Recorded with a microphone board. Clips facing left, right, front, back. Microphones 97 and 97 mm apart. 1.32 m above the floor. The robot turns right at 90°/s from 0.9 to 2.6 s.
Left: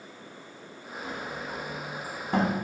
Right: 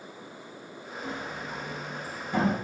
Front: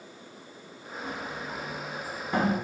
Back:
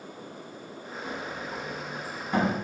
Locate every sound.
1.0 s a sliding door: 35° right, 1.0 m; by 2.5 s 100° left, 1.0 m